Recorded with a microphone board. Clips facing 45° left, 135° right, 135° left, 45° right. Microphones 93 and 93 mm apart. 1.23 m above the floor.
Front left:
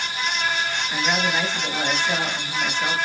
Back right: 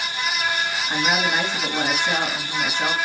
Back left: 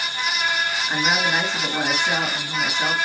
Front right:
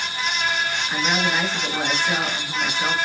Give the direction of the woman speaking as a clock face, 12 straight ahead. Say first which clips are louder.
Back right 2 dB, back left 1 dB; 6 o'clock.